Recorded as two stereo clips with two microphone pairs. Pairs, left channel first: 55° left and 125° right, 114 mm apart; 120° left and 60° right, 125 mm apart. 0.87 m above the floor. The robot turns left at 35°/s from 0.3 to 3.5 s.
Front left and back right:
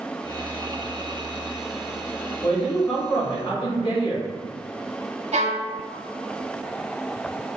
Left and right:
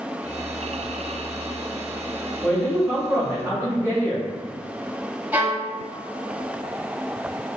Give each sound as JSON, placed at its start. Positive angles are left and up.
{"t": 2.4, "sound": "a man speaking", "azimuth_deg": 45, "distance_m": 1.9}
{"t": 5.3, "sound": "a violin", "azimuth_deg": -135, "distance_m": 0.7}